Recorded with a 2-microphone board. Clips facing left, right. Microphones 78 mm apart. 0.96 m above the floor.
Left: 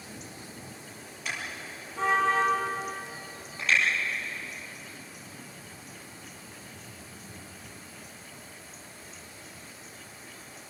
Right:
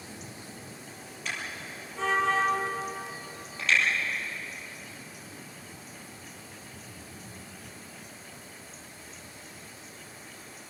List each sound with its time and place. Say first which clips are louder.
1.2 s a car horn: even; 5° left (ahead or behind), 9.5 m